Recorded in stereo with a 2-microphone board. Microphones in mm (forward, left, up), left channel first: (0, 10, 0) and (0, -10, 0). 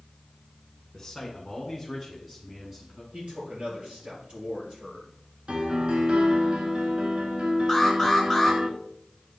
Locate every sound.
0.9 s a man speaking: 10° left (ahead or behind), 1.8 m; by 3.0 s 25° right (ahead or behind), 1.6 m
3.1 s a man speaking: 70° right (ahead or behind), 4 m
5.5 s a piano: 55° right (ahead or behind), 1.3 m
7.7 s an alarm: 5° right (ahead or behind), 3 m